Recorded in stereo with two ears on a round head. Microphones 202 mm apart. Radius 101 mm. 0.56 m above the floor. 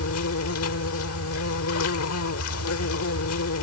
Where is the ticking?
No ticking in this recording.